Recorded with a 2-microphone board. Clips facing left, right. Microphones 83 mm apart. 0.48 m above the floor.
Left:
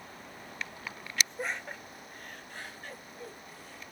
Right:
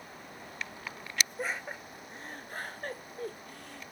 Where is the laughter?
Centre (ahead or behind), 0.8 m; by 3.9 s 60° right (ahead or behind), 1.5 m.